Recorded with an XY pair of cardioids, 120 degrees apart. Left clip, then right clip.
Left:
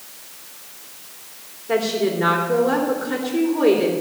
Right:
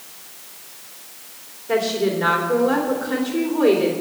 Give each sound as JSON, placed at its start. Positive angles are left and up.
{"t": 1.7, "sound": "a woman speaking", "azimuth_deg": 5, "distance_m": 3.5}